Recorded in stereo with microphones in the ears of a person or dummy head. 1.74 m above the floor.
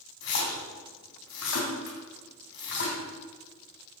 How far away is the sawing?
No sawing in this recording.